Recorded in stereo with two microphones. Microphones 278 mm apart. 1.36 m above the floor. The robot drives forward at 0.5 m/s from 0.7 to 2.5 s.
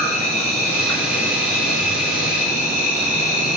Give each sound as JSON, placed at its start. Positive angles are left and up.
{"t": 0.0, "sound": "an insect", "side_deg": 80, "distance_m": 3.5}